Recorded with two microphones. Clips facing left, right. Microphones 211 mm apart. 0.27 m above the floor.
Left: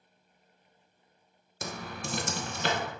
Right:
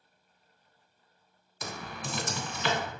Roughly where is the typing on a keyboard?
Left.